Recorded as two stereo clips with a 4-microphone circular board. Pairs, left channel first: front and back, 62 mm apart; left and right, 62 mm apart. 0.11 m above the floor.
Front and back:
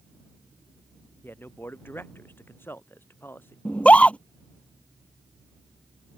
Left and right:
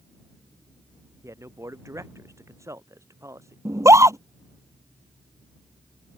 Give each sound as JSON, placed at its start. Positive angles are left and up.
{"t": 1.2, "sound": "a man speaking", "azimuth_deg": -55}
{"t": 3.6, "sound": "a scream", "azimuth_deg": -65}